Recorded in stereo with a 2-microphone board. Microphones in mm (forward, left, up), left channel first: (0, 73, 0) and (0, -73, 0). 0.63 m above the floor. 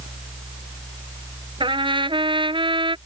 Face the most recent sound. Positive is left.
turn(degrees=-35)  # may be behind; listen again after turning